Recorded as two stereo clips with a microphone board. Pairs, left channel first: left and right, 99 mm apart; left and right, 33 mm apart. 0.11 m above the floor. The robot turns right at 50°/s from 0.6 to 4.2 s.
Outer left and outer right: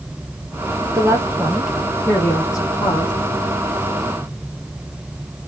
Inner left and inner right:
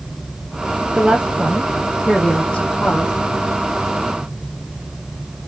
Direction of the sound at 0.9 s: 40° right.